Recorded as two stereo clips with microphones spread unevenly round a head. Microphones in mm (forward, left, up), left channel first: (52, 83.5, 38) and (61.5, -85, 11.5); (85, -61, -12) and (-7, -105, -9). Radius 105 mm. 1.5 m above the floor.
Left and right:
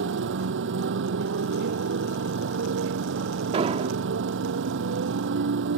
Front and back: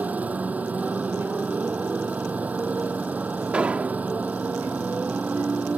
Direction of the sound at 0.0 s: 80° right.